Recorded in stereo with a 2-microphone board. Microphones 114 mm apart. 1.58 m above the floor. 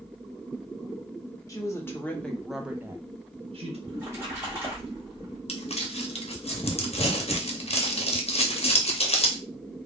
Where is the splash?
20° right (ahead or behind), 1.4 m.